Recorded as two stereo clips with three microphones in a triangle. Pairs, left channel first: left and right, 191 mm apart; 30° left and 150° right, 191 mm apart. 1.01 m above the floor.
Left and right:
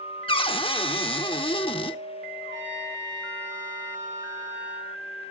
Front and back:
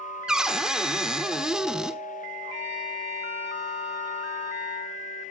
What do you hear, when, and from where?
0.3 s a cupboard door: 125° left, 0.9 m
2.4 s a trumpet: 100° right, 8 m